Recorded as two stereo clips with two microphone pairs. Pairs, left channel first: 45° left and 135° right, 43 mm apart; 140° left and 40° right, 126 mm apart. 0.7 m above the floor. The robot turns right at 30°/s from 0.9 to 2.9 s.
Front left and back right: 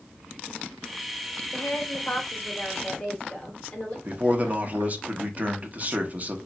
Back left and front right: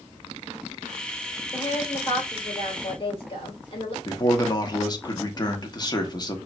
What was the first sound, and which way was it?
A woman speaking, 60° left.